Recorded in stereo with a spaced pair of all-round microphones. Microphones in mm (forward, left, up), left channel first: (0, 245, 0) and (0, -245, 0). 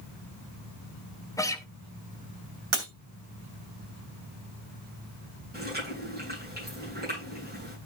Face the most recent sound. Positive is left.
turn(degrees=-20)  # may be behind; listen again after turning